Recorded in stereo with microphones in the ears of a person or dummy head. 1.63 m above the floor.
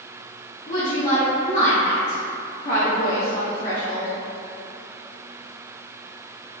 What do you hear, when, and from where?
0.7 s a woman speaking: 40° left (ahead or behind), 0.8 m